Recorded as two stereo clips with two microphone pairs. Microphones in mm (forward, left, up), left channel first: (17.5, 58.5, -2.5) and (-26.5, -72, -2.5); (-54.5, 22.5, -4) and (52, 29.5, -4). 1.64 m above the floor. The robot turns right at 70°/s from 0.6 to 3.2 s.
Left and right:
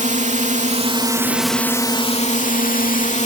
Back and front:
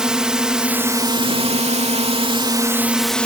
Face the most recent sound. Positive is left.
turn(degrees=105)